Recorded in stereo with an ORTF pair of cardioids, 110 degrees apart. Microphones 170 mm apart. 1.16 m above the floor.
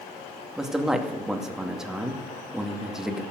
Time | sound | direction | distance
0.6 | a man speaking | straight ahead | 2 m